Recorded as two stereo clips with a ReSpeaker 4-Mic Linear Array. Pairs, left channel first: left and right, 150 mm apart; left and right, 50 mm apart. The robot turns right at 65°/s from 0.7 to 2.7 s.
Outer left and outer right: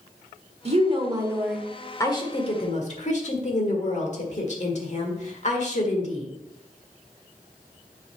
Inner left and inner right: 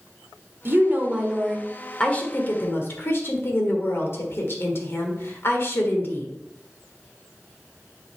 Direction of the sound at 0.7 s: 60° right.